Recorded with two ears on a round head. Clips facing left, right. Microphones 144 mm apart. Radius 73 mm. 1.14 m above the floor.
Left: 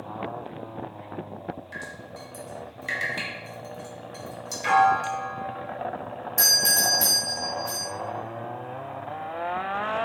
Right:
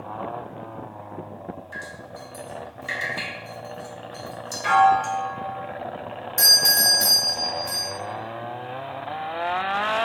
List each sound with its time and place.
1.7 s dripping: 15° left (ahead or behind), 0.7 m
4.6 s a piano: 20° left (ahead or behind), 1.7 m
6.4 s a doorbell: 5° left (ahead or behind), 1.0 m